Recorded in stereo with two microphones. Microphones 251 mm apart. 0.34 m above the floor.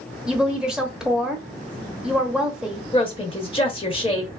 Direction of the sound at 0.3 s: 5° right (ahead or behind).